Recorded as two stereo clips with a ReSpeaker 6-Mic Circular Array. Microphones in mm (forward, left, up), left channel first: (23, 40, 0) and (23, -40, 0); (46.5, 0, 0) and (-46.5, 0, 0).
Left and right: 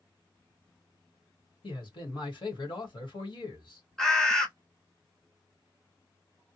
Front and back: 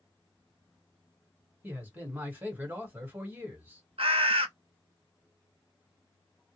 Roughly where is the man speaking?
Left.